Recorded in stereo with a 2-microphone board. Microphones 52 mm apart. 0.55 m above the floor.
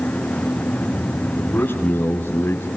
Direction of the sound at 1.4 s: 30° left (ahead or behind).